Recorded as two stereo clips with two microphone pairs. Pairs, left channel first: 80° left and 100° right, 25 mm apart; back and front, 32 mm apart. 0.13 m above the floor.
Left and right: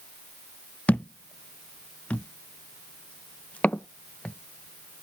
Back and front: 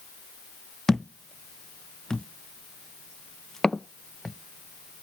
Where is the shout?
No shout in this recording.